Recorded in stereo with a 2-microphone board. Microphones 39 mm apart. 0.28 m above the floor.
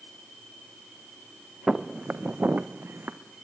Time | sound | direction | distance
1.7 | footsteps | 25° right (ahead or behind) | 1.2 m